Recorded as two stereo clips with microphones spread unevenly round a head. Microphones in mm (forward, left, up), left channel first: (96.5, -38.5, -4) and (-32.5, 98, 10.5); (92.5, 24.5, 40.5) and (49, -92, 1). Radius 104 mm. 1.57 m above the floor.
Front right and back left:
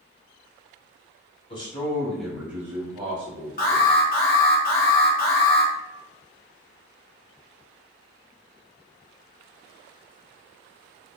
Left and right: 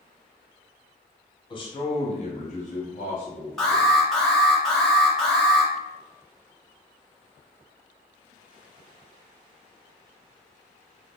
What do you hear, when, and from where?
1.5 s a man speaking: 15° left, 1.2 m; by 3.9 s 90° left, 1.7 m
3.6 s an alarm: 10° right, 1.1 m